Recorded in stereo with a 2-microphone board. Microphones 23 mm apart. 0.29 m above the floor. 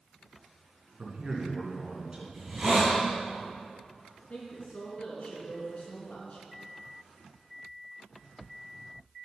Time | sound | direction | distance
1.0 | a man speaking | 35° right (ahead or behind) | 2.5 m
2.3 | a hiss | 25° right (ahead or behind) | 3 m
4.2 | a woman speaking | 65° left (ahead or behind) | 3.5 m